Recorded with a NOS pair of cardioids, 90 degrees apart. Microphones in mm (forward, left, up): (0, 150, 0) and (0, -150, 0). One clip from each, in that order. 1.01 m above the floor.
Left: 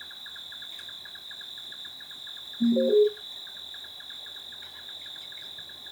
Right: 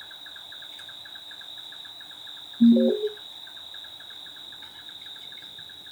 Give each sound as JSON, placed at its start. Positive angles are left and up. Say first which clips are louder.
{"t": 0.0, "sound": "an insect", "louder": "left 1 dB", "azimuth_deg": 20, "distance_m": 2.0}
{"t": 2.6, "sound": "an alarm", "louder": "even", "azimuth_deg": -25, "distance_m": 0.9}